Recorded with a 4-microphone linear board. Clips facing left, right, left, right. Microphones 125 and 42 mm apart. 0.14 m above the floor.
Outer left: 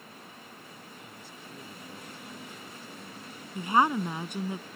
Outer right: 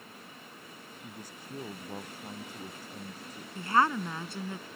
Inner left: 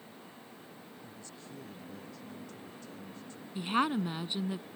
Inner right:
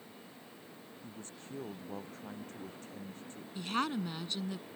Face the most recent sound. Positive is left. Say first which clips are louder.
# outer left 2 dB, inner left 4 dB
turn(degrees=15)  # may be behind; listen again after turning